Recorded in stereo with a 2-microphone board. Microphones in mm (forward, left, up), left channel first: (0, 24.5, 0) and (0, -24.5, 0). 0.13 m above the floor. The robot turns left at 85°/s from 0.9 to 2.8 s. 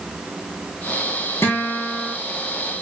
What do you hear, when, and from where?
1.4 s a guitar: 60° left, 3.5 m; by 2.1 s 5° right, 3.5 m